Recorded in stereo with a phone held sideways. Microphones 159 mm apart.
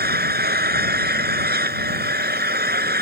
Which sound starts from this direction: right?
An engine running, at 0.0 s.